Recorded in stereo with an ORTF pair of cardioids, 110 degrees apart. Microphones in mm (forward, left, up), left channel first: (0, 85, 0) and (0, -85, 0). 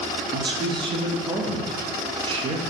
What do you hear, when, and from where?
0.3 s a man speaking: 30° right, 0.9 m